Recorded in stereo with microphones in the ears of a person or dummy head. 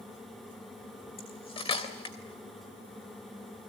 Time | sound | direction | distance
1.2 | cutlery clinking | 30° left (ahead or behind) | 3 m